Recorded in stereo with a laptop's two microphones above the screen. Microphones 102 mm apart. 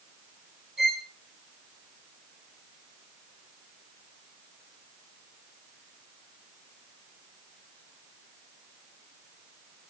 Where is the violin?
Centre (ahead or behind), 1.0 m.